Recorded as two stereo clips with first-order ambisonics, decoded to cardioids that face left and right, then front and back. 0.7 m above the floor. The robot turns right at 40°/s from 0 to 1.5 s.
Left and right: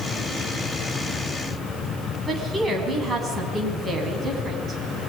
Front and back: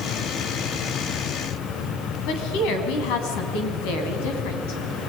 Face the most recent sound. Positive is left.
turn(degrees=-15)